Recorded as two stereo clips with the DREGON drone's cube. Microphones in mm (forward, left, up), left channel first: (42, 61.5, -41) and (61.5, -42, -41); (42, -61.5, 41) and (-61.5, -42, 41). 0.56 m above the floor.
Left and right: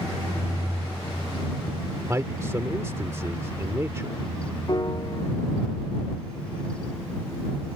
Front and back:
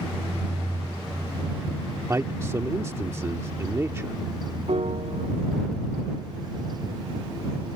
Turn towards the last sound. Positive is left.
turn(degrees=150)